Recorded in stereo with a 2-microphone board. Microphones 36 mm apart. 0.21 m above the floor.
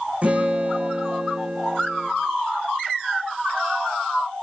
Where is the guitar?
40° right (ahead or behind), 5 m.